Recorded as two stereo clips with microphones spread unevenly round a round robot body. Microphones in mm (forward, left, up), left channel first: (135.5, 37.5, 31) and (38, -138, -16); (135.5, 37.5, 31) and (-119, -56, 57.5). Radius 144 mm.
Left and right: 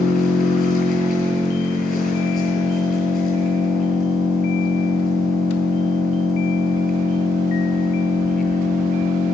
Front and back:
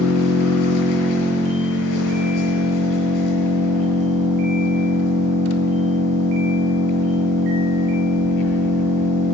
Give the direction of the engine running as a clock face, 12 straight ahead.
11 o'clock.